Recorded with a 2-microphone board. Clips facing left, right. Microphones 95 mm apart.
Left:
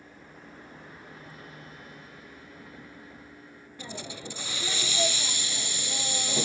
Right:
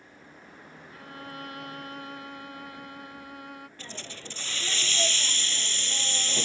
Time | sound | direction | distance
0.9 | a violin | 75° right (ahead or behind) | ?
3.8 | a hiss | 15° left (ahead or behind) | ?